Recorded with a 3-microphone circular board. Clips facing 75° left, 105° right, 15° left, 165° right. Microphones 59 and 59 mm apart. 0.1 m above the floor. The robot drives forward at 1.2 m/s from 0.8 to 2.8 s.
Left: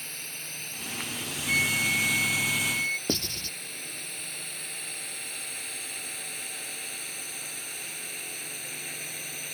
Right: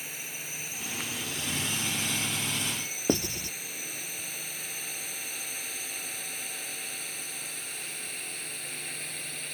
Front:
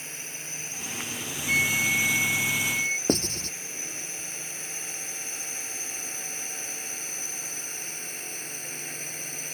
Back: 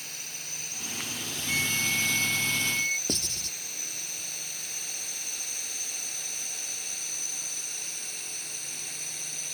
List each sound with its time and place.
0.0 s a drone: 30° right; by 9.6 s 10° right
1.5 s a flute: 65° left; by 3.0 s 95° left
3.1 s writing: 35° right